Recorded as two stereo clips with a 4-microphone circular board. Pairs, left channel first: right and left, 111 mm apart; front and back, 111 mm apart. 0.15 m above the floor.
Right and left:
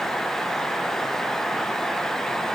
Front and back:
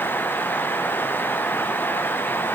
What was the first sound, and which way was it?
Only background noise.